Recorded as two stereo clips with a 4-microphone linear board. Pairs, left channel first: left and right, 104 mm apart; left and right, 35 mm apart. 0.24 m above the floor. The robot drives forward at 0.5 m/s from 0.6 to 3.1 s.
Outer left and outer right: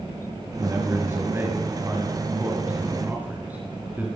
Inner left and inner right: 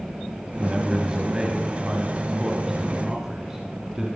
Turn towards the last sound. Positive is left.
turn(degrees=-15)  # may be behind; listen again after turning